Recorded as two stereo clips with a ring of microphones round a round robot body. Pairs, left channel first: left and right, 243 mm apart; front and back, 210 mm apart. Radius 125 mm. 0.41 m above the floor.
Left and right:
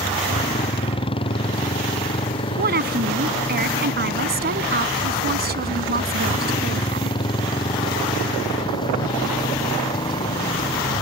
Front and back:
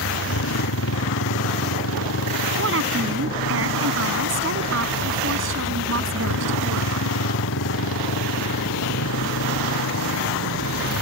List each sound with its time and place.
0.0 s a motorcycle: 20° left; by 11.0 s 15° left
2.6 s a woman speaking: 140° right